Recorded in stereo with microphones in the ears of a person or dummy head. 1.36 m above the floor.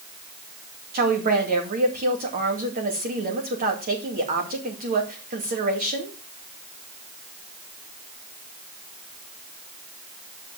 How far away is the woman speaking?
About 2.5 m.